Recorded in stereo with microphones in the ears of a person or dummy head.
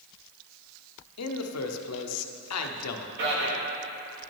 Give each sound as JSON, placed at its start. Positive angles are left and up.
{"t": 1.2, "sound": "a man speaking", "side_deg": 85, "distance_m": 0.8}
{"t": 3.2, "sound": "a man speaking", "side_deg": -55, "distance_m": 2.0}